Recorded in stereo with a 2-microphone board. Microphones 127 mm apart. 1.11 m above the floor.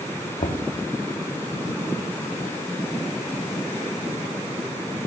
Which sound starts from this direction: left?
Knocking, at 0.4 s.